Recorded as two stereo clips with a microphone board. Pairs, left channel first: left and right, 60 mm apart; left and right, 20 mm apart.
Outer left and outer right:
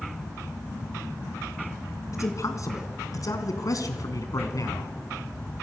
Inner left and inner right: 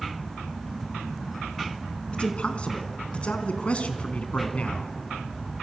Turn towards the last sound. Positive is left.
turn(degrees=70)  # may be behind; listen again after turning